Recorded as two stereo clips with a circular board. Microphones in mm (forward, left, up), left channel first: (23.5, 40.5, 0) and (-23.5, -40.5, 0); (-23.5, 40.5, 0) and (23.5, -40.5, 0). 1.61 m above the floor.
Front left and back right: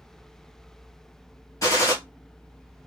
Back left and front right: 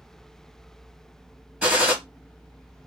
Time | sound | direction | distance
1.6 | a gunshot | 15° left | 1.5 m